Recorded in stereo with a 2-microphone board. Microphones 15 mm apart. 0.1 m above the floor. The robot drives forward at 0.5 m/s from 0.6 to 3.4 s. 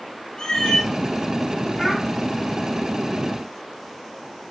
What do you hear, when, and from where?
0.4 s a cat meowing: 40° left (ahead or behind), 0.7 m; by 0.9 s 35° left (ahead or behind), 0.8 m
1.8 s a child speaking: 30° left (ahead or behind), 1.1 m